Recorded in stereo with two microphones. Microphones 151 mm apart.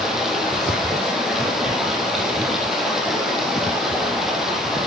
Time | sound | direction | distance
0.0 | running water | 5° right (ahead or behind) | 4 m